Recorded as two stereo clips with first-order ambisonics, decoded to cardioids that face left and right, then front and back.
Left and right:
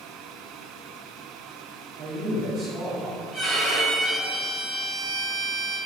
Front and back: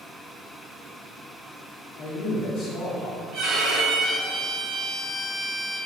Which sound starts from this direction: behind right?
A violin, at 3.3 s.